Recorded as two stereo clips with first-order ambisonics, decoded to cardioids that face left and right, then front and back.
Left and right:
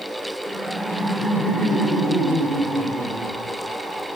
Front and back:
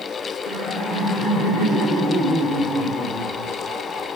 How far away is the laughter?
About 1.3 m.